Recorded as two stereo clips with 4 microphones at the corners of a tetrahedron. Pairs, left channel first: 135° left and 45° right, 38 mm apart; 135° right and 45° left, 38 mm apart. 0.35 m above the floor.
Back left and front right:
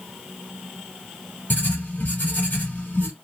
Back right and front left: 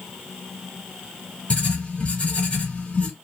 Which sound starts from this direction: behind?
Writing, at 1.5 s.